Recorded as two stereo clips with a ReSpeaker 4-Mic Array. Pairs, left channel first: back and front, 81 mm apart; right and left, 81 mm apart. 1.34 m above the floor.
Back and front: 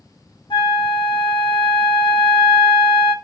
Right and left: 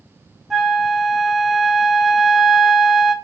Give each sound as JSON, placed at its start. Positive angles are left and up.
{"t": 0.5, "sound": "a flute", "azimuth_deg": 175, "distance_m": 0.6}